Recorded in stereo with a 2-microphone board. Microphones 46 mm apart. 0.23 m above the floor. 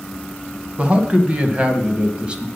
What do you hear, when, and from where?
0.8 s a man speaking: 25° right (ahead or behind), 1.5 m; by 2.5 s 20° right (ahead or behind), 1.3 m